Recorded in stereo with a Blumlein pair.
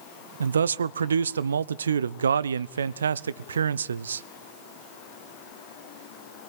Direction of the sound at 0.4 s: 70° right.